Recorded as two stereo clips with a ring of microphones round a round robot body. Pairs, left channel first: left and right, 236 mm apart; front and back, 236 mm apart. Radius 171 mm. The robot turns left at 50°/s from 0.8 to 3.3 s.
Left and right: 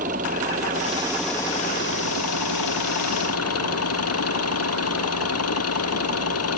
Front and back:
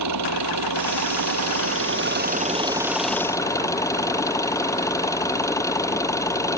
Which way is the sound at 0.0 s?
160° right.